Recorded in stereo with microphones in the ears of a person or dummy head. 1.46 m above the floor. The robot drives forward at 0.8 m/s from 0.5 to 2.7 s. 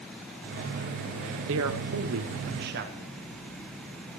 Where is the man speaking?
80° right, 1.1 m; by 3.1 s 55° right (ahead or behind), 1.3 m.